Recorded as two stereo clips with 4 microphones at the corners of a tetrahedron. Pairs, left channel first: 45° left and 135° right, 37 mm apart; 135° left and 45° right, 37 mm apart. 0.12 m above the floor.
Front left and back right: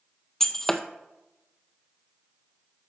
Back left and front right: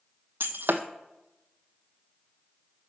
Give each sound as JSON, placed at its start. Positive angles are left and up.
{"t": 0.4, "sound": "breaking glass", "azimuth_deg": -35, "distance_m": 0.7}